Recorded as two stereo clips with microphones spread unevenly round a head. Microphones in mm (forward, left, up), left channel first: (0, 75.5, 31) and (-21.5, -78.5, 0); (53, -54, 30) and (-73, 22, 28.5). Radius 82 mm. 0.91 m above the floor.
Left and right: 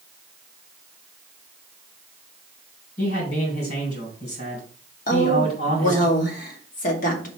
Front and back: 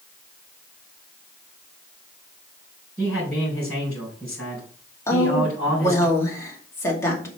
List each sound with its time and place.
3.0 s a man speaking: 50° left, 4.5 m
5.1 s a woman speaking: 40° left, 2 m